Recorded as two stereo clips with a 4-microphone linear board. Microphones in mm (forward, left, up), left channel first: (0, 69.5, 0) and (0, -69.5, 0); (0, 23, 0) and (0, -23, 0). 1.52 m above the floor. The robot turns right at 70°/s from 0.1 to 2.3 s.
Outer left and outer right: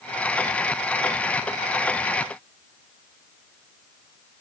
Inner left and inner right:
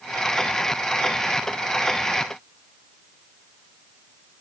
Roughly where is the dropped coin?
I don't hear a dropped coin.